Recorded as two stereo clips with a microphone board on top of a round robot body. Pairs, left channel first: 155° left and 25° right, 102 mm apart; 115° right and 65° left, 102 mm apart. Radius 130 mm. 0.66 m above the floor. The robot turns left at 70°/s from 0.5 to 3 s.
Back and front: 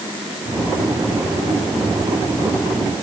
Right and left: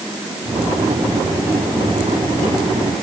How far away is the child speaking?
No child speaking in this recording.